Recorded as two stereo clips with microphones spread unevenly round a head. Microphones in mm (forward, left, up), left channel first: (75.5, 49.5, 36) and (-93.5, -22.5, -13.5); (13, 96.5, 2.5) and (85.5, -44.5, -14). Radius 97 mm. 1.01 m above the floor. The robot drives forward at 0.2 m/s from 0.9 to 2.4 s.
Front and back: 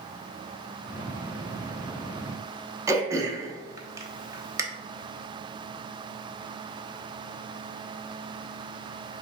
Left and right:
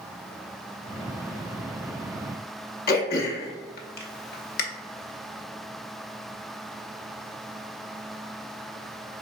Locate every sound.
2.9 s throat clearing: 125° left, 0.7 m